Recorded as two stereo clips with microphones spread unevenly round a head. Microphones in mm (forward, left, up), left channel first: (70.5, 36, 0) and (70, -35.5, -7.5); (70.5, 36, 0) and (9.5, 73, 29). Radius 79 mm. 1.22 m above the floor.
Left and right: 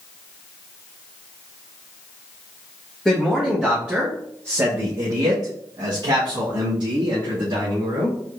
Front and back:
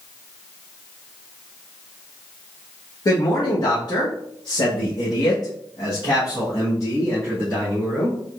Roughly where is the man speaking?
Ahead.